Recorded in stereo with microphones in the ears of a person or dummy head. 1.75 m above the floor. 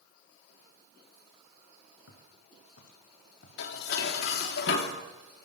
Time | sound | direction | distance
2.1 | footsteps | 70° left (ahead or behind) | 8 m
3.6 | dishes clattering | 60° left (ahead or behind) | 3 m